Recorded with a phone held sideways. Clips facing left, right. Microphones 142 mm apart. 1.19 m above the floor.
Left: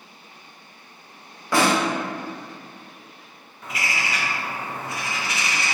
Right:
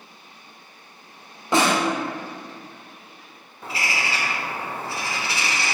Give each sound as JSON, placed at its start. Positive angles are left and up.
{"t": 1.5, "sound": "a snare drum", "side_deg": -20, "distance_m": 0.7}
{"t": 3.6, "sound": "a bird", "side_deg": -30, "distance_m": 0.6}